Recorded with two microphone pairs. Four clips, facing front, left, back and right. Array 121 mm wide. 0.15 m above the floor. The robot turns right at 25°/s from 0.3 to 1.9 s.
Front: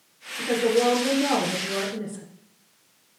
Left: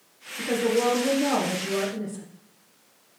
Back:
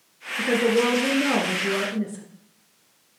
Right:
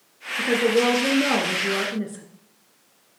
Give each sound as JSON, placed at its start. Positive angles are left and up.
{"t": 0.4, "sound": "a woman speaking", "azimuth_deg": -135, "distance_m": 1.7}